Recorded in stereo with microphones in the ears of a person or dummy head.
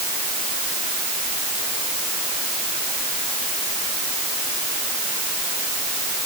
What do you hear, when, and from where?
Only background noise.